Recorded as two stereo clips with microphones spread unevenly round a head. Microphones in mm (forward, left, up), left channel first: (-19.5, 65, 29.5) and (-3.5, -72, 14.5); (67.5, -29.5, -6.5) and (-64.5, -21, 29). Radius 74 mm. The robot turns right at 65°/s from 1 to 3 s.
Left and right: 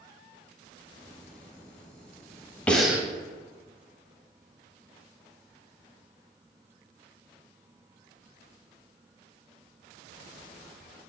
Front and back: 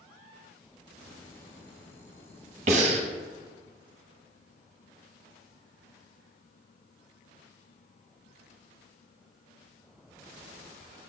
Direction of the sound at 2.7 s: 175° left.